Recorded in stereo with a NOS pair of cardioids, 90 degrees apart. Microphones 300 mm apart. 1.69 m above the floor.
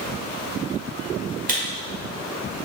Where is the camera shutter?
30° right, 1.4 m.